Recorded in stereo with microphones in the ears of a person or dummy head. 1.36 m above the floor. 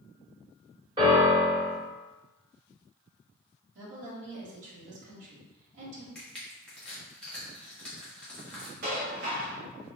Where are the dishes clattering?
55° right (ahead or behind), 0.7 m.